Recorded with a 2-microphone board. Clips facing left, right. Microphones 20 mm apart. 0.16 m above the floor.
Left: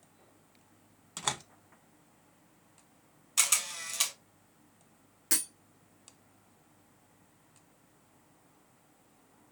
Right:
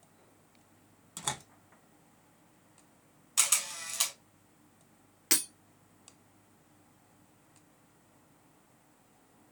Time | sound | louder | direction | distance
1.2 | a door slam | left 3 dB | 25° left (ahead or behind) | 0.7 m
3.4 | a camera shutter | left 1 dB | 5° left (ahead or behind) | 1.4 m
5.3 | breaking glass | right 3 dB | 45° right (ahead or behind) | 1.2 m